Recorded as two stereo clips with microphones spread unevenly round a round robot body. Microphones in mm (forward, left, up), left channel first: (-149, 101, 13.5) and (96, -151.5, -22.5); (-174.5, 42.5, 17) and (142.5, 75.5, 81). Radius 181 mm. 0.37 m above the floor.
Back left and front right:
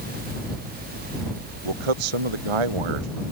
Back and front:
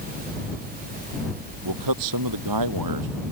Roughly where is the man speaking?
Ahead right.